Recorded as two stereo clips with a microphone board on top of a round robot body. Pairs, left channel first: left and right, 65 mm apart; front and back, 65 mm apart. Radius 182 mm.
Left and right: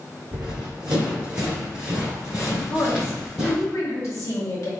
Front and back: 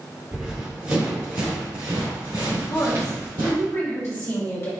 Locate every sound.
0.3 s running footsteps: 105° right, 1.2 m; by 3.6 s 175° right, 2.5 m
2.7 s a woman speaking: 55° left, 1.9 m